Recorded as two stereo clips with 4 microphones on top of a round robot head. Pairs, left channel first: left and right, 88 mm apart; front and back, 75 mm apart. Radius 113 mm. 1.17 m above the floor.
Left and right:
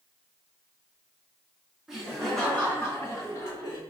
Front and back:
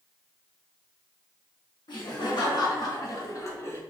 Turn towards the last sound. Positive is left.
turn(degrees=55)